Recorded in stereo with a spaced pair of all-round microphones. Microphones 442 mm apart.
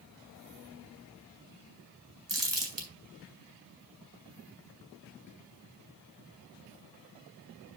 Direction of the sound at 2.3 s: 75° right (ahead or behind).